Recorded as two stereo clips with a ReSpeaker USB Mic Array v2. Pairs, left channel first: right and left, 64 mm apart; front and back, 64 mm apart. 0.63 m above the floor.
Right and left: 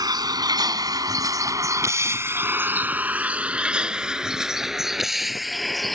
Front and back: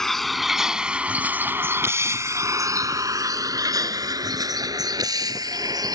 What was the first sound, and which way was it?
A vehicle, 85° left.